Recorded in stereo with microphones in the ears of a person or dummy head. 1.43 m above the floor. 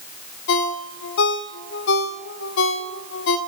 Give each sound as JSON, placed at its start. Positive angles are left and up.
{"t": 0.5, "sound": "a ringtone", "side_deg": 55, "distance_m": 1.6}